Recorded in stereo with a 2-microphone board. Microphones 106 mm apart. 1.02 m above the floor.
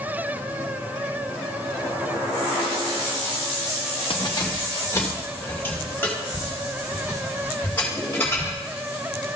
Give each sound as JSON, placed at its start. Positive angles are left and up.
{"t": 4.1, "sound": "keys jangling", "side_deg": 55, "distance_m": 0.8}